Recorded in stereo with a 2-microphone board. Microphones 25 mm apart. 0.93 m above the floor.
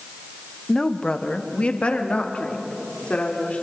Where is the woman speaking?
25° left (ahead or behind), 0.9 m; by 3.6 s 65° left (ahead or behind), 3.5 m.